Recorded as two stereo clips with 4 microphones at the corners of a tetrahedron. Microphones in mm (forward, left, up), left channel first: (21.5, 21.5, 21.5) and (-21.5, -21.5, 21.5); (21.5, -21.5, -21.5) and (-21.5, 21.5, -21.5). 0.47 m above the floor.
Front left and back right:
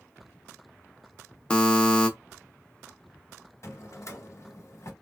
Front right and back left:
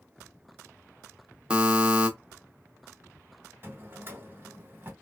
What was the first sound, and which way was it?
A buzzer, 95° left.